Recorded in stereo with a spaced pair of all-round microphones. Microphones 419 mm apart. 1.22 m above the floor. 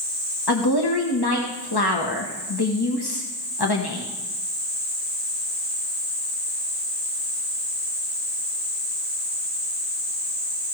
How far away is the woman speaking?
About 1.3 m.